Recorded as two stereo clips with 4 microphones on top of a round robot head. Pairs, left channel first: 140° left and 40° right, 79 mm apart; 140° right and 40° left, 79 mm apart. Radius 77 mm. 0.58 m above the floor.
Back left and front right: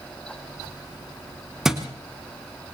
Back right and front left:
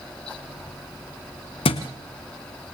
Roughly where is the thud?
Behind right.